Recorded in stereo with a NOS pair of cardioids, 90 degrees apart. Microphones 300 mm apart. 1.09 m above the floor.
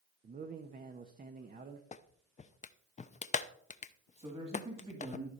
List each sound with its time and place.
0.2 s a man speaking: 30° right, 1.0 m
1.9 s a clap: 25° left, 0.6 m
4.2 s a man speaking: 20° right, 2.5 m